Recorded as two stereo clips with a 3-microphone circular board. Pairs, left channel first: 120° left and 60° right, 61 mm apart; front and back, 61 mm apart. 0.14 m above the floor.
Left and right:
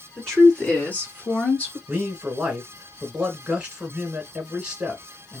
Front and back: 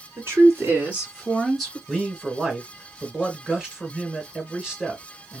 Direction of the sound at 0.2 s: 170° right.